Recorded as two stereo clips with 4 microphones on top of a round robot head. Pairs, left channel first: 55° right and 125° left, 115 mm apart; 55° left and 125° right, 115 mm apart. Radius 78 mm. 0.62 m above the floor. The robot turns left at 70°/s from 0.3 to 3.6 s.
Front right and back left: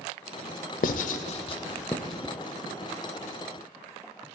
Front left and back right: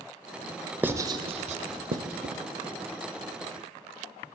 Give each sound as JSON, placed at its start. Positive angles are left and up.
{"t": 0.8, "sound": "writing", "azimuth_deg": -50, "distance_m": 0.7}